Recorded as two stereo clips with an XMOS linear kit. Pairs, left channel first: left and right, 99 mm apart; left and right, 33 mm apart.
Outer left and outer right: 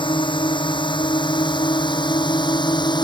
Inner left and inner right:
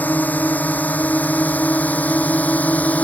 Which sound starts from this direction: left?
A drone, at 0.0 s.